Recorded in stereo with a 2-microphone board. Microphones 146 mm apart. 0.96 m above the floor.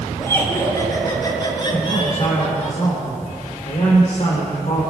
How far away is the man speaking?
About 3 m.